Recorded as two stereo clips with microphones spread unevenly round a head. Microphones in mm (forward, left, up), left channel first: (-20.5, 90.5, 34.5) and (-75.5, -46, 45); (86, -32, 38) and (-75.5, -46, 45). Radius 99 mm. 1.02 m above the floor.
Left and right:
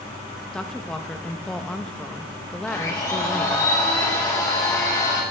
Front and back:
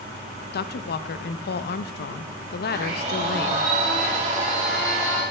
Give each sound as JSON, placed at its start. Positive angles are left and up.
{"t": 0.5, "sound": "a woman speaking", "azimuth_deg": -15, "distance_m": 0.7}
{"t": 2.7, "sound": "a blender", "azimuth_deg": 135, "distance_m": 4.5}